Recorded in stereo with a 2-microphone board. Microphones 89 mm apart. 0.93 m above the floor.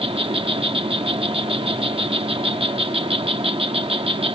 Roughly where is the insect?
Right.